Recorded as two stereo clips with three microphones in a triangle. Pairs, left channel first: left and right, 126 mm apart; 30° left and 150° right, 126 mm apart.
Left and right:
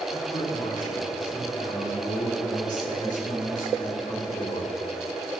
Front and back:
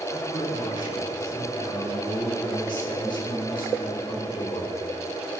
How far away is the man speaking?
About 3 m.